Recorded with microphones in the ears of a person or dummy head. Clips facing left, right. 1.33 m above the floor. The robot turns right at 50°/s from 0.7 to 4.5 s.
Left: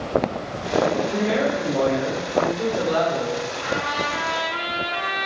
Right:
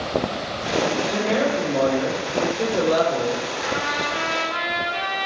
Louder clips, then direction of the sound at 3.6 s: Even; 155° right.